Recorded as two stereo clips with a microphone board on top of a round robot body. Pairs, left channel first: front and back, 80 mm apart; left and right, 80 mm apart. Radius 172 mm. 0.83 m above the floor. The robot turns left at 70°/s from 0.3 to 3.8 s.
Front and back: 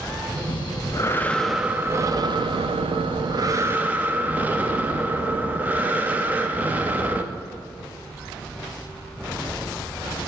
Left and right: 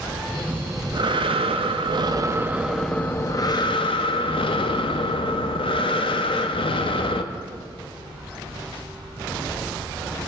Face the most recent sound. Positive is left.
turn(degrees=110)